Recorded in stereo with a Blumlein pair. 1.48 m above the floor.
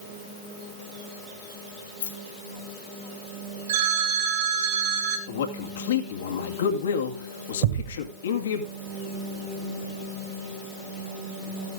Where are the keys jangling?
65° left, 3 m.